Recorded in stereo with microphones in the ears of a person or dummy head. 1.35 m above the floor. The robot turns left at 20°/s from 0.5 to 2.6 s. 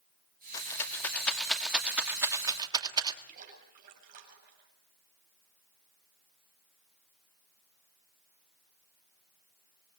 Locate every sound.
0.5 s a rattle: 20° left (ahead or behind), 2 m; by 3.2 s 20° right (ahead or behind), 2 m
3.3 s a splash: 50° right (ahead or behind), 8 m